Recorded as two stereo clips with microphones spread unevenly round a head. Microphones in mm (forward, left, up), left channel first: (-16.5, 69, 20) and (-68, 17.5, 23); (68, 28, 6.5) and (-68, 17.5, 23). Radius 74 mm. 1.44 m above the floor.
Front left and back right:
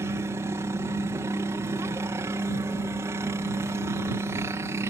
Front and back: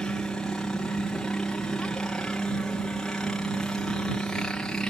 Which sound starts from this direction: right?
A helicopter, at 0.0 s.